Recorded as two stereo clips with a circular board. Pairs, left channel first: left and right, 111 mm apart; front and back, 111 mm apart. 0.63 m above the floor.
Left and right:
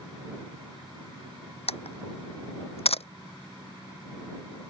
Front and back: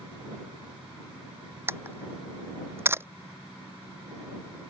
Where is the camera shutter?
115° left.